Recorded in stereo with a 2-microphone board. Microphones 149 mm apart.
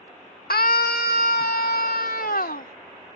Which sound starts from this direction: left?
A scream, at 0.5 s.